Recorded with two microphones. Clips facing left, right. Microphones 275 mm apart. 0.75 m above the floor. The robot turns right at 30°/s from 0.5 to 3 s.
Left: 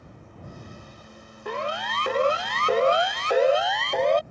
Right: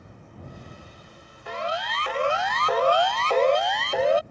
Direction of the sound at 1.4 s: 60° left (ahead or behind).